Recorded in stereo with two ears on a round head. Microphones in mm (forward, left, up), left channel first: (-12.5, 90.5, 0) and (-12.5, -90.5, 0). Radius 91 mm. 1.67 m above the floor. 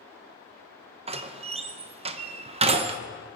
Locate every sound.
1.1 s a door slam: 30° right (ahead or behind), 0.8 m